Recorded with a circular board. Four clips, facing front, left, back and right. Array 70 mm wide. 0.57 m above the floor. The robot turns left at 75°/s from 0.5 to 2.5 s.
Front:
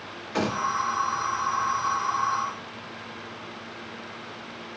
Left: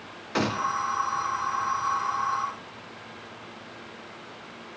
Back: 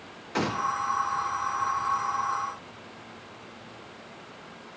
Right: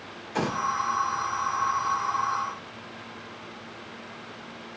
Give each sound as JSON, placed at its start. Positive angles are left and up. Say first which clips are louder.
{"t": 0.3, "sound": "a gunshot", "louder": "left 1 dB, front 1 dB", "azimuth_deg": 100, "distance_m": 1.5}